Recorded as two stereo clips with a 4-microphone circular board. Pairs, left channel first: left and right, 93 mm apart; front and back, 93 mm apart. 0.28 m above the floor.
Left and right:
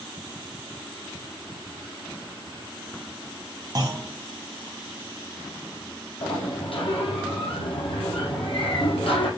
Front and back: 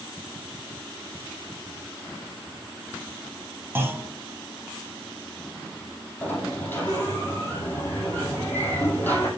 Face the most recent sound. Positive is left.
turn(degrees=70)